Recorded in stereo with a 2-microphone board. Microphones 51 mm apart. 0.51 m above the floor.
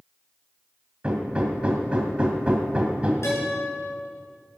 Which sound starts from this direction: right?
Hammering, at 1.0 s.